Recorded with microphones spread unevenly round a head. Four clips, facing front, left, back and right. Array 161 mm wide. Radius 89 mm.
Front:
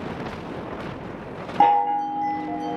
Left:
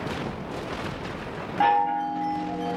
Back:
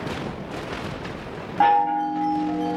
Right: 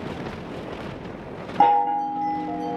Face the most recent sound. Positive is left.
turn(degrees=-90)